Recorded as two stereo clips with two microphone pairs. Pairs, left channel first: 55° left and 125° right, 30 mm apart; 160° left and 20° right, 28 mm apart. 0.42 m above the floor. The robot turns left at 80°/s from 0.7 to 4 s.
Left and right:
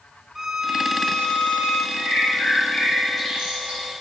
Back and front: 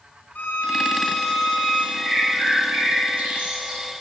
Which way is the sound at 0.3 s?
160° left.